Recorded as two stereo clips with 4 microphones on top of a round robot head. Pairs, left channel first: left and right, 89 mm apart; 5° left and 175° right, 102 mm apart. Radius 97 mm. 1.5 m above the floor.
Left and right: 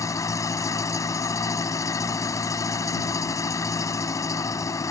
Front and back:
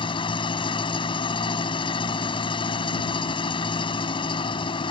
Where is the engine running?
40° left.